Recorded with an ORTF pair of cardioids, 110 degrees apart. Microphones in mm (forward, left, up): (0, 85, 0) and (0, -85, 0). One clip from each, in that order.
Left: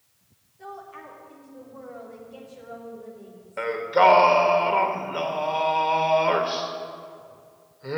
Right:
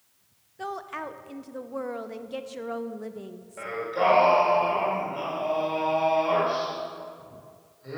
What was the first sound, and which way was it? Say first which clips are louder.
A woman speaking: right 6 dB; 70° right.